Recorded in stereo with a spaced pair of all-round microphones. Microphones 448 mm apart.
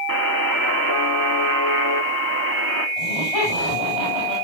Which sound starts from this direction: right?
A buzzer, at 0.1 s.